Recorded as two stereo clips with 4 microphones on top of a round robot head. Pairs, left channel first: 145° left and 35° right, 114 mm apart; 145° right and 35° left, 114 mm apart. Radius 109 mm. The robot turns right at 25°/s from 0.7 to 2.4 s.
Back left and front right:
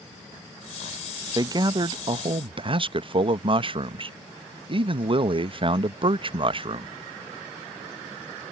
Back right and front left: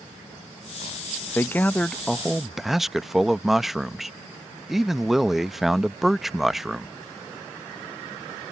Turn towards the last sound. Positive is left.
turn(degrees=-55)